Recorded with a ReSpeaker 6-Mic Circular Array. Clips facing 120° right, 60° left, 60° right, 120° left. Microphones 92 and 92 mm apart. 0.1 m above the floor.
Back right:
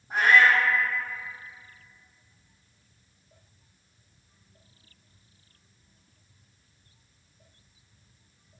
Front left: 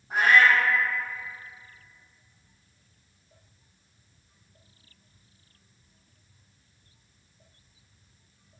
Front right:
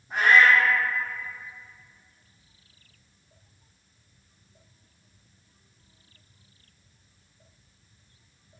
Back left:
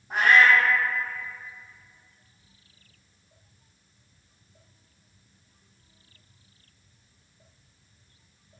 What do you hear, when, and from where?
0.1 s a cat meowing: 145° left, 1.9 m